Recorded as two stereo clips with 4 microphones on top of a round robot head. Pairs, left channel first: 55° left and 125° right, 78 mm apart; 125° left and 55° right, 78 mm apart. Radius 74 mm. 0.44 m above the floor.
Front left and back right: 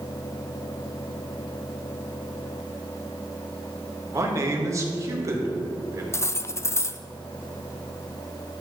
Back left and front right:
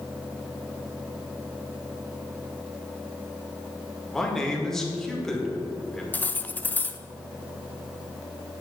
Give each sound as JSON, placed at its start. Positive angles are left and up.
{"t": 4.1, "sound": "a man speaking", "azimuth_deg": -150, "distance_m": 1.8}
{"t": 6.1, "sound": "cutlery clinking", "azimuth_deg": 75, "distance_m": 0.5}